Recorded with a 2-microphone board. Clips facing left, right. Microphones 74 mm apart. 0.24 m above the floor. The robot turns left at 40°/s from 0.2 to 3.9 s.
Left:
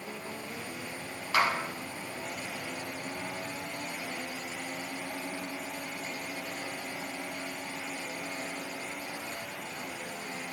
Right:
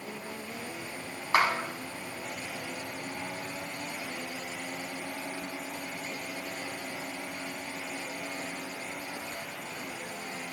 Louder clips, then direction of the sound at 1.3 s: Right 2 dB; 40° right (ahead or behind).